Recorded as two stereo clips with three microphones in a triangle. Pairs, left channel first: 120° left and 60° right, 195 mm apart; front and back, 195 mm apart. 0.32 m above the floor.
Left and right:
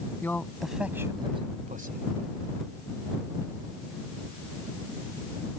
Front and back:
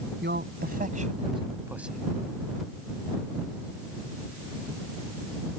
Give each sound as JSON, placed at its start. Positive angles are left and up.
{"t": 0.2, "sound": "a man speaking", "azimuth_deg": -160}